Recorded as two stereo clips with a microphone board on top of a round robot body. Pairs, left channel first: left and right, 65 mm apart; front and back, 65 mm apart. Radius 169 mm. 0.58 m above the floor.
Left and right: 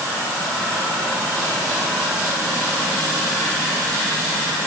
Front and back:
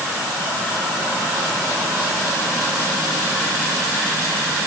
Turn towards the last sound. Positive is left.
No sound to turn to.